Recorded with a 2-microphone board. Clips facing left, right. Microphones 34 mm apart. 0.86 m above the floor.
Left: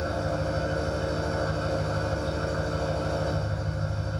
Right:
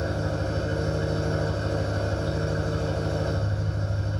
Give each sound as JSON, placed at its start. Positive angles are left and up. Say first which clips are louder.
{"t": 0.0, "sound": "an engine running", "louder": "even", "side_deg": 60, "distance_m": 1.5}